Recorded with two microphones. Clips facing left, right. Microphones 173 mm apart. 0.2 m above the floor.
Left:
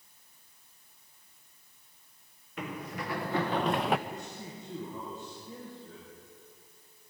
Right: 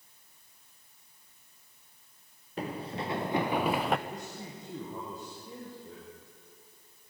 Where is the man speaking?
35° right (ahead or behind), 6.5 m.